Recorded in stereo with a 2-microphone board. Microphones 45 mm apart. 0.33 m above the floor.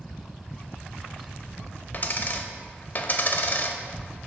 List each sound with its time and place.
1.9 s a dropped coin: 45° left (ahead or behind), 0.5 m